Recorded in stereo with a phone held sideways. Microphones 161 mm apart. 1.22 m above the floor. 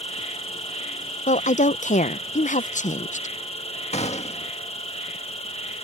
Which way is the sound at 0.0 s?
40° left (ahead or behind).